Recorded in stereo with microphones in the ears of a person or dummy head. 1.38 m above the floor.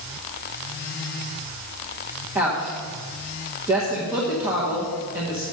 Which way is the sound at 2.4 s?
10° right (ahead or behind).